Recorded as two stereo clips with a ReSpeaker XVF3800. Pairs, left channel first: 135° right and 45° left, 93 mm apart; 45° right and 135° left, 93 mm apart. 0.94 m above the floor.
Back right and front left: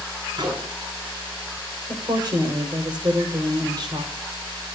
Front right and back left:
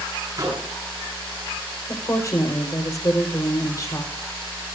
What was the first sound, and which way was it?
A microwave, 80° left.